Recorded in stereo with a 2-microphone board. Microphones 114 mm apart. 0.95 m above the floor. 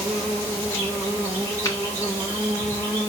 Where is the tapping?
30° left (ahead or behind), 1.1 m.